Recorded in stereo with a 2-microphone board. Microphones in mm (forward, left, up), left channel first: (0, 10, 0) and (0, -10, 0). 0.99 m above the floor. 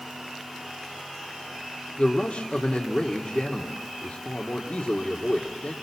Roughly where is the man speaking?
Left.